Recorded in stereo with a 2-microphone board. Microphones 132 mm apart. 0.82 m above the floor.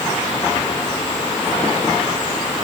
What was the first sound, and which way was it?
Only background noise.